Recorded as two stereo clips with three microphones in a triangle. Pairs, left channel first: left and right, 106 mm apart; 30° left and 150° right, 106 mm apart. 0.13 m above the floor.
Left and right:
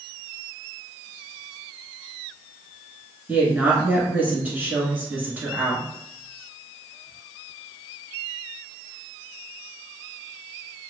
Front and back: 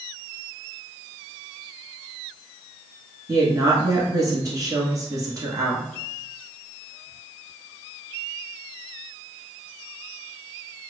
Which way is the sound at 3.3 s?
150° right.